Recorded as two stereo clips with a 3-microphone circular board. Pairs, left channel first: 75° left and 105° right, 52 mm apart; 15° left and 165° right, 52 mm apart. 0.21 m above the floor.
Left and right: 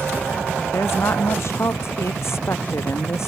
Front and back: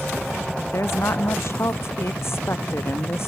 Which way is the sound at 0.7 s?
45° left.